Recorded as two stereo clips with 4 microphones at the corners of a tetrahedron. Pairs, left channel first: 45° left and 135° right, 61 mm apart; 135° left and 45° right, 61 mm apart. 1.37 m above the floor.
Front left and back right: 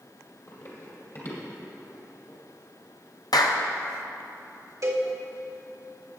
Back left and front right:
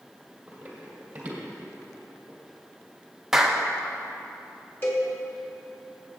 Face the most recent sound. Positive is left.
turn(degrees=-165)